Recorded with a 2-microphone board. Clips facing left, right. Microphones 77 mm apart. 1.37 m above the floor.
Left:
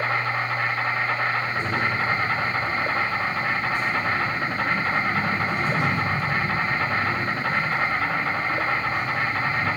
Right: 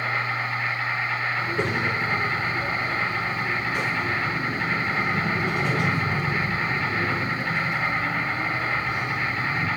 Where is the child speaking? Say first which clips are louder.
Even; 80° right, 4 m.